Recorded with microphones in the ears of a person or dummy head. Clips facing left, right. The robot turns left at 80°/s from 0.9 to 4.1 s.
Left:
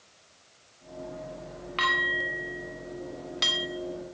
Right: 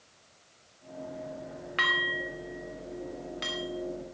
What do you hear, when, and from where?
1.8 s dishes clattering: 15° right (ahead or behind), 3 m; by 3.7 s 45° left (ahead or behind), 3 m